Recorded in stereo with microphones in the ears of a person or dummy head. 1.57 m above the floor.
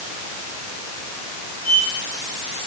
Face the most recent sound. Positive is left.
turn(degrees=15)  # may be behind; listen again after turning